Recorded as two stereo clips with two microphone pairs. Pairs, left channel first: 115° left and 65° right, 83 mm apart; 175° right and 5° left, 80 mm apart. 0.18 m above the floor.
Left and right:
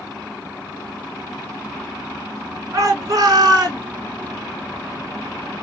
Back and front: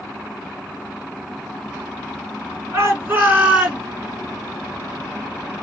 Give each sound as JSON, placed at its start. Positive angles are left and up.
{"t": 2.7, "sound": "a shout", "azimuth_deg": -40, "distance_m": 2.5}